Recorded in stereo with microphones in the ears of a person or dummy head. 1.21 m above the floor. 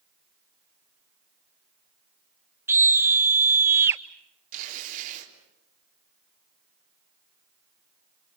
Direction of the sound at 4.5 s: 45° right (ahead or behind).